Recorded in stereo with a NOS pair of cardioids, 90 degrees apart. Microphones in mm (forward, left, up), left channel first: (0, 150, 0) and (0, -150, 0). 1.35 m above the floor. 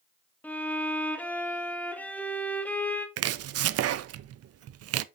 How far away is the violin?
About 1.4 m.